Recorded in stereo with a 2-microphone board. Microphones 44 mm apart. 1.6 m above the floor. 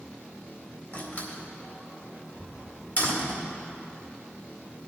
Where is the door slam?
50° left (ahead or behind), 2 m.